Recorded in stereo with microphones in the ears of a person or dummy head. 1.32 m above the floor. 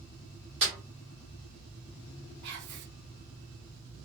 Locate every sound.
0.6 s a snare drum: 40° right (ahead or behind), 1.5 m
2.4 s whispering: 60° right (ahead or behind), 0.7 m